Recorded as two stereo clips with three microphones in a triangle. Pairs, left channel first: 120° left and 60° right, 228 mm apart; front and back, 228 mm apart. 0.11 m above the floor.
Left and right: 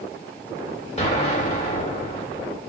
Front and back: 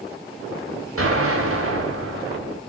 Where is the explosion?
Straight behind, 4.5 m.